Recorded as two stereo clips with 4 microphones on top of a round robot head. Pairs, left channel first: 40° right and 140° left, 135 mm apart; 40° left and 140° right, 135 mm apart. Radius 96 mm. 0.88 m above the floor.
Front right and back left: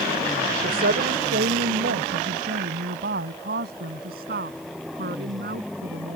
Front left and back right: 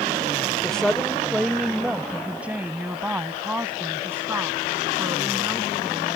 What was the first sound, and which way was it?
A woman speaking, 125° left.